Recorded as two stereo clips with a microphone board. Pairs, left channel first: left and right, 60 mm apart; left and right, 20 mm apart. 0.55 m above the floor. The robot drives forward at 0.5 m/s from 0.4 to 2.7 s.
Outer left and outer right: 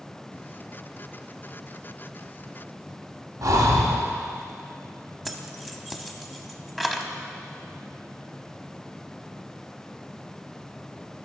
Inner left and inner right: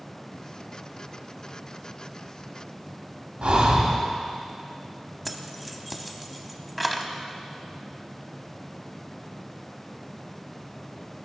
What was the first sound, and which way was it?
Breathing, 70° right (ahead or behind).